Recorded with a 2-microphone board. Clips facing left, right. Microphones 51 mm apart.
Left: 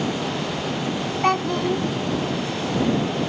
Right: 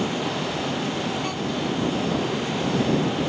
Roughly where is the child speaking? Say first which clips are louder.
Left 6 dB; left.